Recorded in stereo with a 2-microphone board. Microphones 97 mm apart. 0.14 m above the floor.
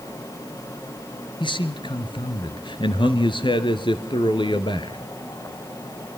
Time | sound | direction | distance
1.4 | a man speaking | 55° left (ahead or behind) | 2.0 m